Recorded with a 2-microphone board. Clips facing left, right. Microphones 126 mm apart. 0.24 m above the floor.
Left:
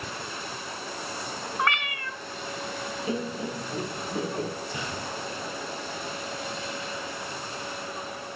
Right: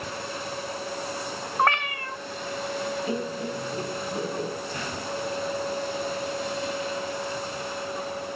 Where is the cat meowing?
45° right (ahead or behind), 0.6 m.